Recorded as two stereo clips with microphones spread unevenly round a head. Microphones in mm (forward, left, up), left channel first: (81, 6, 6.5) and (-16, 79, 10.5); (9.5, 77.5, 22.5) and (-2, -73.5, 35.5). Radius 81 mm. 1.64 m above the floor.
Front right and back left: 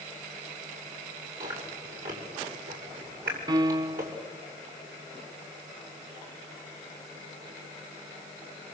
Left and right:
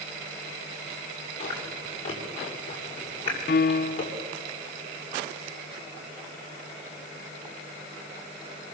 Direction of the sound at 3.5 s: 100° left.